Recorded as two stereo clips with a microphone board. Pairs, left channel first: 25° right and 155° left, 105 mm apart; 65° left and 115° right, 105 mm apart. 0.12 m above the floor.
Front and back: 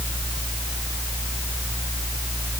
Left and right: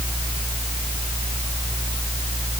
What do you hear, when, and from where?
Only background noise.